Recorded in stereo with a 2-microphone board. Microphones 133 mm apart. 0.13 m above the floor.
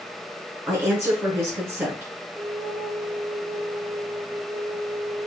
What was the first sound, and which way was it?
A woman speaking, 20° right (ahead or behind).